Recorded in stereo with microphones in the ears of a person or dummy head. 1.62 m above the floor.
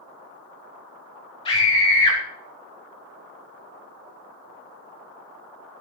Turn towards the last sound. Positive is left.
turn(degrees=20)  # may be behind; listen again after turning